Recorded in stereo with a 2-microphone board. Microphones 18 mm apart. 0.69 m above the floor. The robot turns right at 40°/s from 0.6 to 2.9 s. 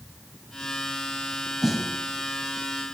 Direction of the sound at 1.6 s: 10° right (ahead or behind).